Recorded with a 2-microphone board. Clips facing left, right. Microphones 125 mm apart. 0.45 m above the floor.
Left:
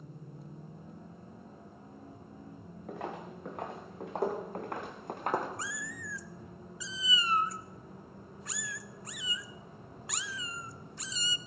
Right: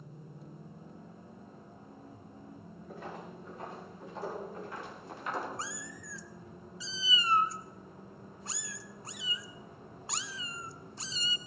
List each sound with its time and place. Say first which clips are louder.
2.9 s footsteps: left 4 dB; 80° left, 2.5 m; by 5.5 s 50° left (ahead or behind), 1.8 m
5.6 s a cat meowing: left 1 dB; 30° right (ahead or behind), 0.6 m